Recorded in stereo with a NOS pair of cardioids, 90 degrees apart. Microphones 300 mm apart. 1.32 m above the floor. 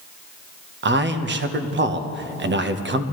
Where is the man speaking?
35° right, 1.1 m.